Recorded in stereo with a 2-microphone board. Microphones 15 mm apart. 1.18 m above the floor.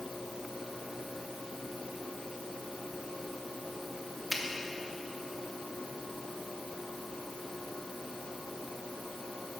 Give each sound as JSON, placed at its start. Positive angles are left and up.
{"t": 4.3, "sound": "a finger snap", "side_deg": 5, "distance_m": 1.2}